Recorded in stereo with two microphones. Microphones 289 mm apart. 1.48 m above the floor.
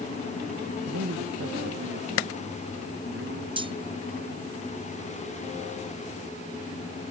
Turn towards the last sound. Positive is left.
turn(degrees=-15)  # may be behind; listen again after turning